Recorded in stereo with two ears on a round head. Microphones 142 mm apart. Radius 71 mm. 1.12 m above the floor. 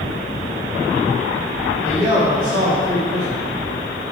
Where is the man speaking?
30° right (ahead or behind), 3.5 m.